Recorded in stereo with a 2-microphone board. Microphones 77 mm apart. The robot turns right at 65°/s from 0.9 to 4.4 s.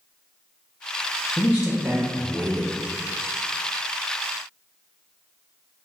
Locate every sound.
1.4 s a man speaking: 165° left, 0.6 m; by 2.7 s 110° right, 0.6 m